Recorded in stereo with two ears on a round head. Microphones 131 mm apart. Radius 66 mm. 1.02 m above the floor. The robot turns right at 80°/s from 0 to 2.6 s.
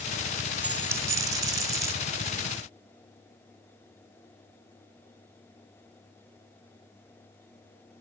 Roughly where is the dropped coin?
Centre.